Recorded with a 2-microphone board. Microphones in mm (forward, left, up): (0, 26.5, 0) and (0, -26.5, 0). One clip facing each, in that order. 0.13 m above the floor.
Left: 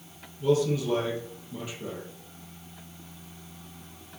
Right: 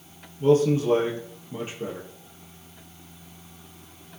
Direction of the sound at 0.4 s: 30° right (ahead or behind).